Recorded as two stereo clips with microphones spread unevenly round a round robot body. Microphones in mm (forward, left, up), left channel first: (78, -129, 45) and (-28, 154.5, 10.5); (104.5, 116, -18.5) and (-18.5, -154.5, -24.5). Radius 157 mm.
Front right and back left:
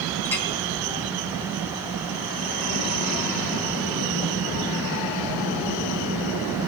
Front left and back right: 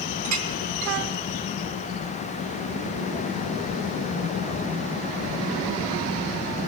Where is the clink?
155° right, 3 m.